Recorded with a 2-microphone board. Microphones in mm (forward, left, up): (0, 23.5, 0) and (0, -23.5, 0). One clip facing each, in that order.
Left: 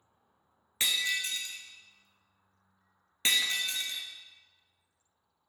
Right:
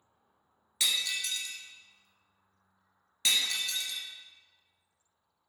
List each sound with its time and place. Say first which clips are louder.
0.8 s breaking glass: left 2 dB; 30° left (ahead or behind), 0.9 m